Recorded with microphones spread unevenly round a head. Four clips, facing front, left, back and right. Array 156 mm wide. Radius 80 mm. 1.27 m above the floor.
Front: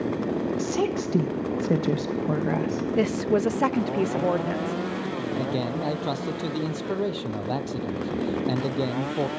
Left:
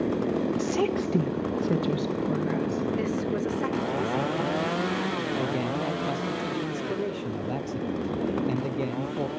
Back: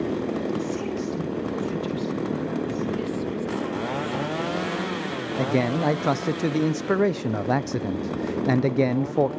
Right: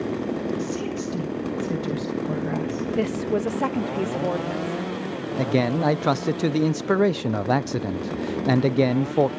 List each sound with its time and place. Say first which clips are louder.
0.6 s a woman speaking: left 2 dB, front 2 dB; 45° left, 1.8 m; by 2.9 s 30° right, 1.8 m
3.0 s a woman speaking: right 4 dB, front 5 dB; 40° right, 0.5 m
5.4 s a man speaking: right 6 dB, back 8 dB; 125° right, 0.6 m